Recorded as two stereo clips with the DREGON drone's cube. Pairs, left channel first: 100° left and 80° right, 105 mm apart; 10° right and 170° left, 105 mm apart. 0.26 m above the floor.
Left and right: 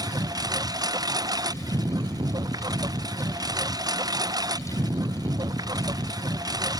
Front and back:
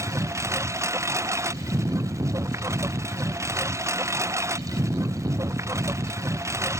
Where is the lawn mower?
130° right.